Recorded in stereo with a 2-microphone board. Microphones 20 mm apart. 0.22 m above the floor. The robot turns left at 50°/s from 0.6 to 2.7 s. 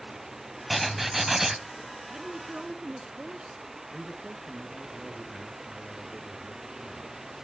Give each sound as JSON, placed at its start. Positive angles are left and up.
{"t": 0.7, "sound": "writing", "side_deg": -5, "distance_m": 0.6}
{"t": 2.1, "sound": "a woman speaking", "azimuth_deg": -35, "distance_m": 2.0}
{"t": 3.9, "sound": "a man speaking", "side_deg": -5, "distance_m": 3.0}